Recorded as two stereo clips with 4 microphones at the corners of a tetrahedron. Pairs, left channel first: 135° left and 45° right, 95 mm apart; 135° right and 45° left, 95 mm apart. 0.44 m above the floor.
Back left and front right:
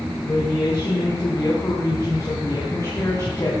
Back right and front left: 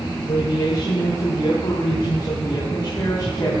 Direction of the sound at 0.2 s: 170° right.